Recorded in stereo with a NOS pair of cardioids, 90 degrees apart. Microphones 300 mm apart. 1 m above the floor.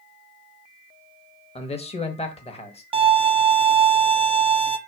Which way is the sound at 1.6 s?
20° left.